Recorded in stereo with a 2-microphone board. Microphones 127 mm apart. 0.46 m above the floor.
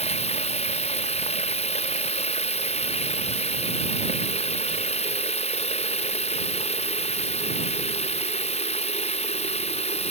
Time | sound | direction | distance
0.0 | running water | 60° left (ahead or behind) | ?